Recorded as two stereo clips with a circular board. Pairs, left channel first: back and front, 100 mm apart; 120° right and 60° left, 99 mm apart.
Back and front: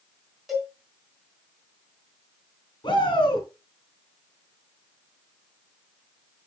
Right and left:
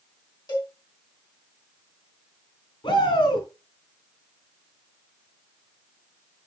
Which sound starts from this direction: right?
A cowbell, at 0.5 s.